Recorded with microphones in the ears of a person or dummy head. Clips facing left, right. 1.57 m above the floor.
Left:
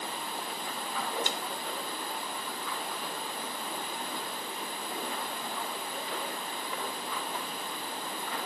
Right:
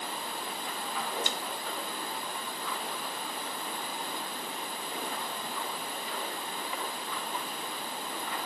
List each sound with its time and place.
1.3 s a snare drum: 70° right (ahead or behind), 0.7 m